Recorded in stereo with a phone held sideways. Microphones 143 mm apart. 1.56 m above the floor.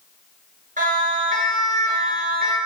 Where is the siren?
65° right (ahead or behind), 6 m; by 2.6 s 85° right, 6.5 m.